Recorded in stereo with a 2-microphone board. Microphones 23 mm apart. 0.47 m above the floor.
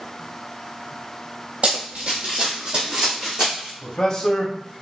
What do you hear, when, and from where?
1.6 s running footsteps: 60° right (ahead or behind), 0.9 m; by 3.7 s 30° right (ahead or behind), 1.9 m
3.8 s a man speaking: 30° left (ahead or behind), 0.8 m